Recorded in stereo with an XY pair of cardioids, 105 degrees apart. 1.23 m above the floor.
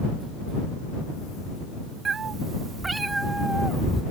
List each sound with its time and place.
2.0 s a cat meowing: 45° right; by 4.0 s straight ahead